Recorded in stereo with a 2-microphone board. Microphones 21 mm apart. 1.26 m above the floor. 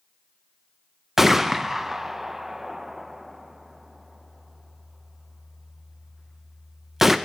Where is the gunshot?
15° right (ahead or behind), 0.5 m.